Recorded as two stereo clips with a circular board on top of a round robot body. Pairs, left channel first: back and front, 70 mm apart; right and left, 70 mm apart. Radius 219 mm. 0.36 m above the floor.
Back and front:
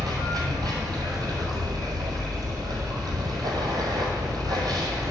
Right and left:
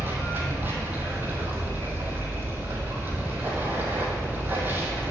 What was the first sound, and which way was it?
Running water, 25° left.